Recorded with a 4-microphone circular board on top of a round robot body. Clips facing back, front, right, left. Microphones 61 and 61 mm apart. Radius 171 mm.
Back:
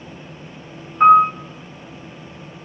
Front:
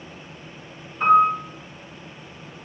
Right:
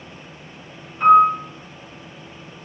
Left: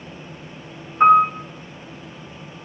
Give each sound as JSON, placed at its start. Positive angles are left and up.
{"t": 1.0, "sound": "a piano", "azimuth_deg": 135, "distance_m": 2.0}